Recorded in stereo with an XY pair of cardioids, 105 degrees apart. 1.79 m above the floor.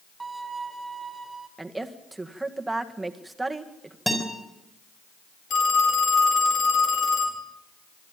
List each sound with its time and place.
0.2 s a violin: 10° right, 2.0 m
1.6 s a woman speaking: 15° right, 1.9 m
4.1 s a guitar: 5° left, 5.5 m
5.5 s a phone ringing: 60° left, 4.5 m